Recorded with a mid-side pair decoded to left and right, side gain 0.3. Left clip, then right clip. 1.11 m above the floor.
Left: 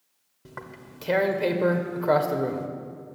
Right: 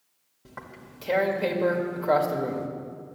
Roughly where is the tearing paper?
Ahead left.